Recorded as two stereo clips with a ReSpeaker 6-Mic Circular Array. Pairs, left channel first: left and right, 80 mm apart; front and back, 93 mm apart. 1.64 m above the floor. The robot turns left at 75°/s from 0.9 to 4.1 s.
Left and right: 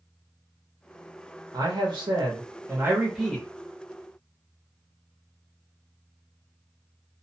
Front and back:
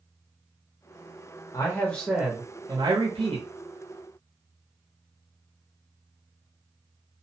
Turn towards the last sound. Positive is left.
turn(degrees=120)